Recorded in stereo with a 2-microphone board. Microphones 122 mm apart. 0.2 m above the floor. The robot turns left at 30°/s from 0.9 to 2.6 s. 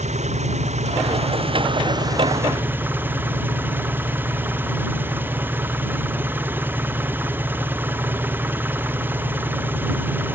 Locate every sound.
0.0 s an engine running: 115° right; by 10.3 s 165° right